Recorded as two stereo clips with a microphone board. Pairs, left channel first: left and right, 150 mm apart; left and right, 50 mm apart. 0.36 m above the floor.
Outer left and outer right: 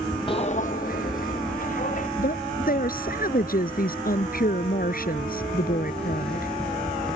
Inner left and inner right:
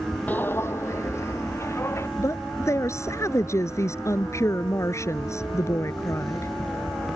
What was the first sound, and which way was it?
Footsteps, 35° left (ahead or behind).